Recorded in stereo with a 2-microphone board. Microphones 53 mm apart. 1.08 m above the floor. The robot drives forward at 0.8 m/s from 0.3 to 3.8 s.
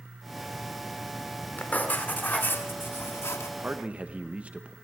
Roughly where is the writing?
Left.